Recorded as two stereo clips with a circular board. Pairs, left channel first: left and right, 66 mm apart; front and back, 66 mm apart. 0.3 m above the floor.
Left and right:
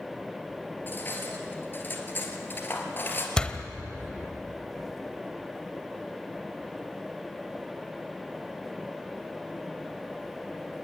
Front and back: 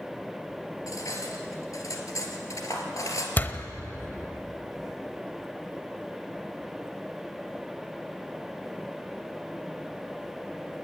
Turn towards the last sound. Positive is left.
turn(degrees=25)